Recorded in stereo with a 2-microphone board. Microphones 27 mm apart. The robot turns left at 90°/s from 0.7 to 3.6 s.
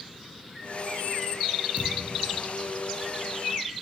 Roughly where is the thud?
Right.